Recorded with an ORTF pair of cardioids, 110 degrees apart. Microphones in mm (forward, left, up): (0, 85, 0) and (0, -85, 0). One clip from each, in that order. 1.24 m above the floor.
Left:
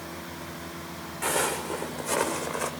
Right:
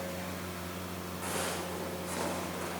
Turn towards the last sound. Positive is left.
turn(degrees=70)